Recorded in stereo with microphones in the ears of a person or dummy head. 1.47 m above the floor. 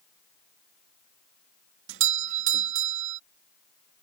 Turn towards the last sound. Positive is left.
turn(degrees=-70)  # may be behind; listen again after turning